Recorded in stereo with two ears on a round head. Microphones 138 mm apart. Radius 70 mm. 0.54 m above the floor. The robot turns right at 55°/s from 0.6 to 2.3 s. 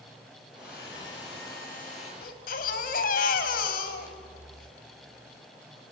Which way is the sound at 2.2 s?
70° left (ahead or behind).